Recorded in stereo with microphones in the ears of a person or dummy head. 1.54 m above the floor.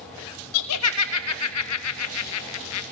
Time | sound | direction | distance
0.5 | laughter | 75° left (ahead or behind) | 1.0 m